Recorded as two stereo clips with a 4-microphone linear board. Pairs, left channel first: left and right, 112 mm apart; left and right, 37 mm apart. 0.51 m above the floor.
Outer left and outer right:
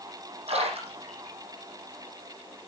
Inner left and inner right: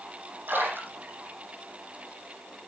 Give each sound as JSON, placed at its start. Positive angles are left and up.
{"t": 0.5, "sound": "a splash", "side_deg": -65, "distance_m": 8.5}